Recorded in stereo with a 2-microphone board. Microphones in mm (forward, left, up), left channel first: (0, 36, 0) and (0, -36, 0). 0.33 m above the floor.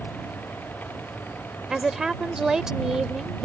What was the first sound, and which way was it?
A woman speaking, 5° right (ahead or behind).